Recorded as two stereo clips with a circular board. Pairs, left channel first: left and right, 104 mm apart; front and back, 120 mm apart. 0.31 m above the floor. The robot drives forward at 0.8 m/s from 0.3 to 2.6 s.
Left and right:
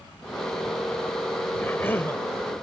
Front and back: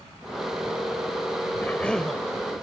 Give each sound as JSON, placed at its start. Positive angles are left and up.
{"t": 1.6, "sound": "a cough", "azimuth_deg": 50}